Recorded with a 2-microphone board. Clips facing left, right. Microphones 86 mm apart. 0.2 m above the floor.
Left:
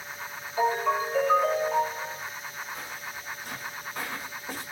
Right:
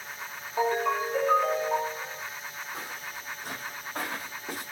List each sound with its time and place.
0.6 s a ringtone: 75° right (ahead or behind), 1.7 m
2.7 s footsteps: 85° right, 2 m; by 4.6 s 65° right (ahead or behind), 3 m